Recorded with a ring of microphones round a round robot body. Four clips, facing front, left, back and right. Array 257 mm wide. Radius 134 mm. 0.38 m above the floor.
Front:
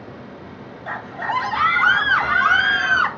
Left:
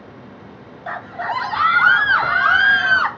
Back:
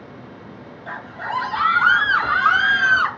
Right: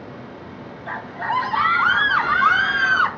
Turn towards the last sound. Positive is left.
turn(degrees=70)